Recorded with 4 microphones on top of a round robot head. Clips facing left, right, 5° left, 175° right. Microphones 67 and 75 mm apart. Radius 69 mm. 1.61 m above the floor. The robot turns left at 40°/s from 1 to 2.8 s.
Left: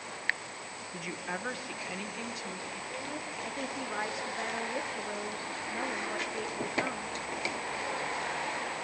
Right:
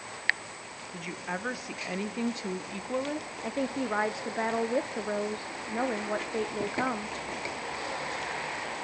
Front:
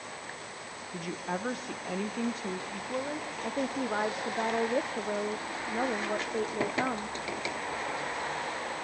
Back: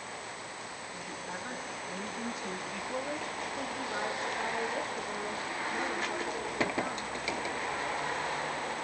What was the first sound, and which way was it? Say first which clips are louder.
A woman speaking: right 2 dB, front 8 dB; 5° left.